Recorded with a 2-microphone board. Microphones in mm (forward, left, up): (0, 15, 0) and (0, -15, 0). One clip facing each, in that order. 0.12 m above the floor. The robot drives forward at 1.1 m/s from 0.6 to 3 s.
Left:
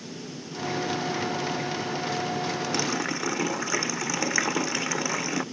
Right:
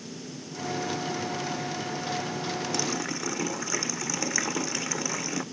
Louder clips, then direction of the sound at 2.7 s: Left 3 dB; 20° left (ahead or behind).